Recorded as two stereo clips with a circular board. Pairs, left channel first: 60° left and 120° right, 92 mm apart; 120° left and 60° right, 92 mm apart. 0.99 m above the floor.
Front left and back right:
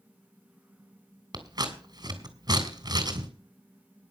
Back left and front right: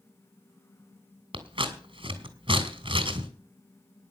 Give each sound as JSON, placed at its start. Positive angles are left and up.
{"t": 1.3, "sound": "scissors", "azimuth_deg": -75, "distance_m": 2.5}